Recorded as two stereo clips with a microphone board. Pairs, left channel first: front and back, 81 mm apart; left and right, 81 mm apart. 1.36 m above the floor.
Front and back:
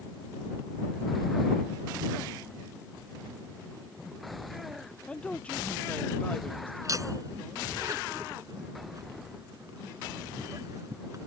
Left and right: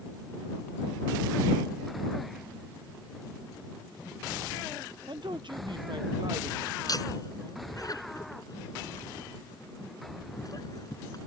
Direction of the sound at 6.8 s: 130° left.